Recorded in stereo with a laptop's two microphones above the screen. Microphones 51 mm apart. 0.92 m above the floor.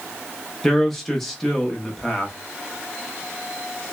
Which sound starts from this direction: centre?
A man speaking, at 0.6 s.